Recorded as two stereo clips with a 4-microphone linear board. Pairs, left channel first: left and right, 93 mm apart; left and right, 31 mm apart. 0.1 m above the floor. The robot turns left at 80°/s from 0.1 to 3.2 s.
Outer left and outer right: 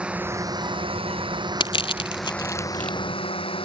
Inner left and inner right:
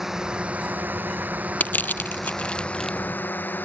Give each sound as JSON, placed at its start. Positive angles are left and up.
{"t": 0.0, "sound": "a drone", "azimuth_deg": -10}
{"t": 1.6, "sound": "crushing", "side_deg": 60}